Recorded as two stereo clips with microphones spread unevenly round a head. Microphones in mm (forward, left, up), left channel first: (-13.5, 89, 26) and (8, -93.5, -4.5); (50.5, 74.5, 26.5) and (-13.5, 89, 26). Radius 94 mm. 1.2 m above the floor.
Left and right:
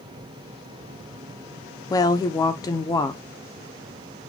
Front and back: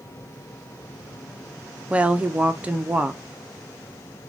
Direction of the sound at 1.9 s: 160° left.